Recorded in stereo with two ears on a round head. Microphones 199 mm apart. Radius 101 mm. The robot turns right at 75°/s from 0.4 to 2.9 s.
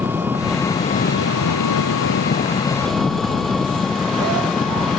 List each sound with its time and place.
0.0 s an engine running: 10° right; by 5.0 s straight behind